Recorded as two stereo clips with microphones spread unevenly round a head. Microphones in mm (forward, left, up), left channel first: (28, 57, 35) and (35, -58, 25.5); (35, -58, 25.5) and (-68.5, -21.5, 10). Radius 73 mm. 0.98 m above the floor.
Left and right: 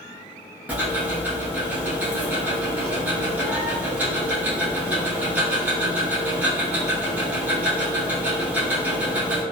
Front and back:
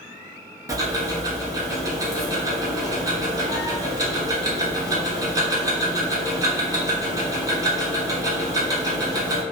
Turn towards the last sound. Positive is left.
turn(degrees=-160)